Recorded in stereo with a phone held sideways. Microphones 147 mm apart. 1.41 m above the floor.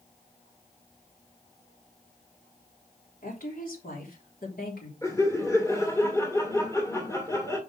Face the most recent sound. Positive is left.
turn(degrees=20)  # may be behind; listen again after turning